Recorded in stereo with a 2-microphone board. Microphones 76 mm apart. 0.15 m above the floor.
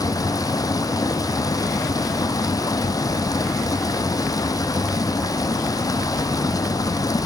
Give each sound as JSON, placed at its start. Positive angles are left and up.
{"t": 0.0, "sound": "running water", "side_deg": 50, "distance_m": 1.3}